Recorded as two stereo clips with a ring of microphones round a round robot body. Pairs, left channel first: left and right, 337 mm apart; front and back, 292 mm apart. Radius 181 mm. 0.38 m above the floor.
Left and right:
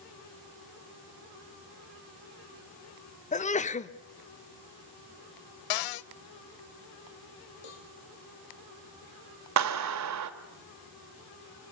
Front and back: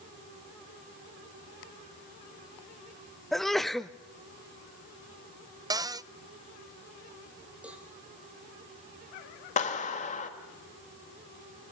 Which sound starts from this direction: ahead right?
A clap, at 9.6 s.